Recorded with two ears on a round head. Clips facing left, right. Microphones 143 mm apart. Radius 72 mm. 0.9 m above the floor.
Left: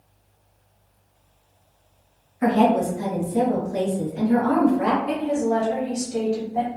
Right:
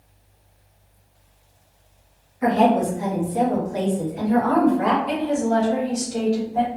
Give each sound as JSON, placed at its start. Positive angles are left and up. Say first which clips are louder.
{"t": 2.4, "sound": "a woman speaking", "louder": "right 1 dB", "side_deg": 55, "distance_m": 0.8}
{"t": 5.1, "sound": "a woman speaking", "louder": "right 1 dB", "side_deg": 5, "distance_m": 1.0}